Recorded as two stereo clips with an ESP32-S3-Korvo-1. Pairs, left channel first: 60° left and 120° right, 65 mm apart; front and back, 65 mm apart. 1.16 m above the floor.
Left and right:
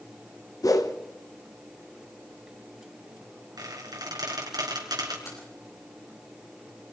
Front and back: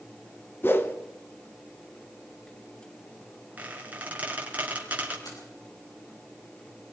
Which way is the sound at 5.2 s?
20° left.